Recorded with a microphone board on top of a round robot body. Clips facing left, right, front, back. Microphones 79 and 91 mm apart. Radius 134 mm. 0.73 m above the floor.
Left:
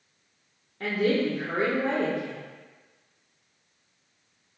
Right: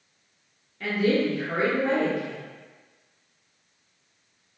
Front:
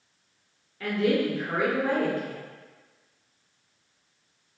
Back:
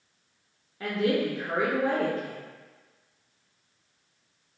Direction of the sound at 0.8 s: 120° left.